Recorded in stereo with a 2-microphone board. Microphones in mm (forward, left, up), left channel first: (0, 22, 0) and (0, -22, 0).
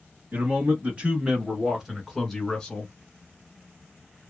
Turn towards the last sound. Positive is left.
turn(degrees=20)  # may be behind; listen again after turning